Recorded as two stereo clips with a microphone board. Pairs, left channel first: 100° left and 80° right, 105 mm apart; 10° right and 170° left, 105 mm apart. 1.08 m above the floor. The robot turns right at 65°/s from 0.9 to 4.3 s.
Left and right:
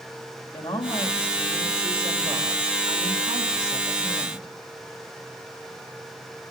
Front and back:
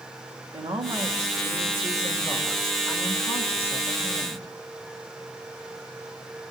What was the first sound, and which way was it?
A woman speaking, 150° left.